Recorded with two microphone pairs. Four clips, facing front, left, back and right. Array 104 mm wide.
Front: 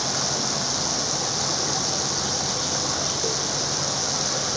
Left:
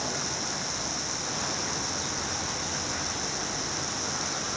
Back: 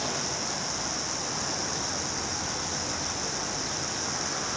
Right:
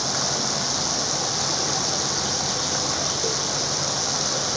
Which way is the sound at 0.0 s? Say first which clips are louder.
Right 6 dB, front 4 dB; 55° right.